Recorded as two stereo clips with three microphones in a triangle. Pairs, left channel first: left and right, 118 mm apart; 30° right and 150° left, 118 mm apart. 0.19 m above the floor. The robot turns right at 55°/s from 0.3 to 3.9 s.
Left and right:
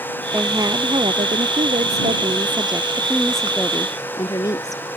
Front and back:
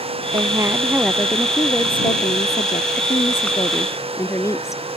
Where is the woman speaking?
165° right; by 4.9 s 35° left.